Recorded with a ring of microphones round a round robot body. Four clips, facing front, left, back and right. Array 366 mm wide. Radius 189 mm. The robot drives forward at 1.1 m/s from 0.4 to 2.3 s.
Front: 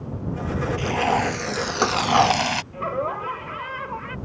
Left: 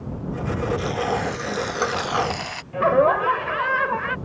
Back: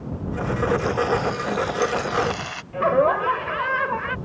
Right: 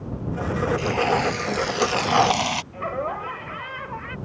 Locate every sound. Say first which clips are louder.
0.8 s frying: right 2 dB, even; 10° right; by 2.6 s 35° right
2.7 s laughter: left 10 dB, back 8 dB; 120° left